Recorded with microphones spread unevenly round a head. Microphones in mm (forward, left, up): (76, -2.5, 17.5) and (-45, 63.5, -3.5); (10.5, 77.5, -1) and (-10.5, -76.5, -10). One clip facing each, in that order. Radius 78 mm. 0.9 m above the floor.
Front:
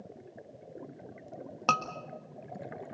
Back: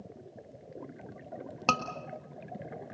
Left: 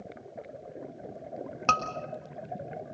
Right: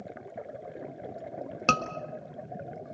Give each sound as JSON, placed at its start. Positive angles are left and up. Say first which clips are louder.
{"t": 1.7, "sound": "a scream", "louder": "even, right 2 dB", "azimuth_deg": -130, "distance_m": 1.5}